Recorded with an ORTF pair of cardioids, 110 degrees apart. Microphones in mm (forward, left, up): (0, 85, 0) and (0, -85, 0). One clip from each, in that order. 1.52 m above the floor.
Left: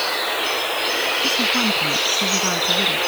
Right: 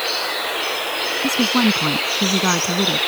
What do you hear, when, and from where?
1.2 s a woman speaking: 45° right; by 3.0 s 50° right